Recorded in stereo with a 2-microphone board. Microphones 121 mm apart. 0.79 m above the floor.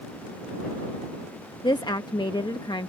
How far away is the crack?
No crack in this recording.